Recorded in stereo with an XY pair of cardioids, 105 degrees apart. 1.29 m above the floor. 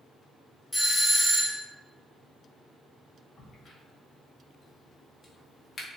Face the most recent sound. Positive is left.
turn(degrees=45)